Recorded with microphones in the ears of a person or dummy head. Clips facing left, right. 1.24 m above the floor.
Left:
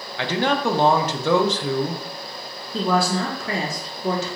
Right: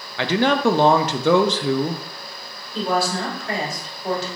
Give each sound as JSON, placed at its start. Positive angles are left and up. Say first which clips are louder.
{"t": 0.2, "sound": "a man speaking", "louder": "right 3 dB", "side_deg": -55, "distance_m": 0.5}
{"t": 2.7, "sound": "a woman speaking", "louder": "left 1 dB", "side_deg": 60, "distance_m": 1.0}